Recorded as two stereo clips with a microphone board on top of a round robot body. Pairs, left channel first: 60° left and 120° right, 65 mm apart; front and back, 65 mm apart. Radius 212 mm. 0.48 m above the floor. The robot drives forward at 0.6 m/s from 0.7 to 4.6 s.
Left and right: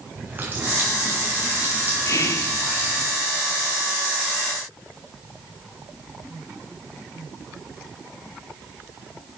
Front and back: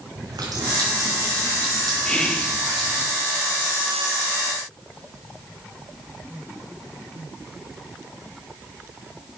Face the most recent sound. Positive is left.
turn(degrees=125)